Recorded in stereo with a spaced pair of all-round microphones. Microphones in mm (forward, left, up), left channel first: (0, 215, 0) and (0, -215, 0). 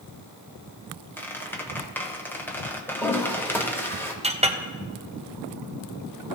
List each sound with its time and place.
1.2 s a squeak: 5° left (ahead or behind), 0.9 m
2.9 s a toilet flushing: 5° left (ahead or behind), 1.4 m
4.2 s a clink: 15° right (ahead or behind), 0.7 m